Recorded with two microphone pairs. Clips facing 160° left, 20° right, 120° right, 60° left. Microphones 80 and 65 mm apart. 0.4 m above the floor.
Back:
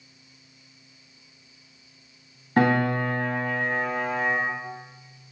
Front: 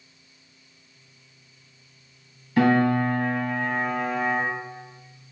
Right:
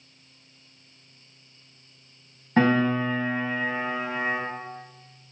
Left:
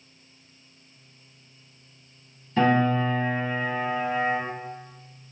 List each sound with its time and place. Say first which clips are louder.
2.6 s a piano: front 2 dB, even; 155° right, 0.9 m